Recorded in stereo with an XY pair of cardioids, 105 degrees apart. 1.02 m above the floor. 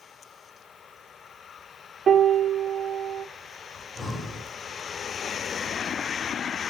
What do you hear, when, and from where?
2.1 s a piano: 40° right, 0.8 m
3.8 s breathing: 20° left, 2 m